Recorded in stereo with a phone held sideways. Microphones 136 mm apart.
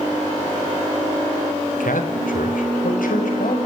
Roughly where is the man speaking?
Left.